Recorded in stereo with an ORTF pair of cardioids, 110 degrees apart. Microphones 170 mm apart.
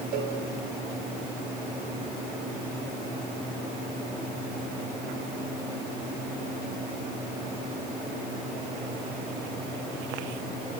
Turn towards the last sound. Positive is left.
turn(degrees=-65)